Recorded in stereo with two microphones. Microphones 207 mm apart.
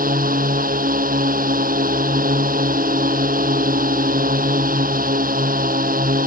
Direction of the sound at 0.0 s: 45° right (ahead or behind).